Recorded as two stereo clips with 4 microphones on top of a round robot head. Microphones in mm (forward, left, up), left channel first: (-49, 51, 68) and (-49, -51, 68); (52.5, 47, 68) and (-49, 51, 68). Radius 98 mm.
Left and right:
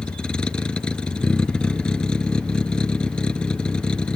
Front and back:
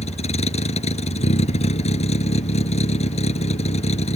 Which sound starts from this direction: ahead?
A vehicle, at 0.0 s.